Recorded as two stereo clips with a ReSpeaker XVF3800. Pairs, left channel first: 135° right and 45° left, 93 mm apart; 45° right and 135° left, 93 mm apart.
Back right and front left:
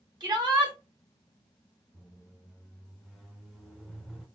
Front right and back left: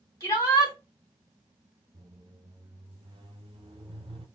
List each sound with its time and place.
0.2 s a shout: 5° left, 2.5 m
1.9 s a squeak: 130° left, 0.9 m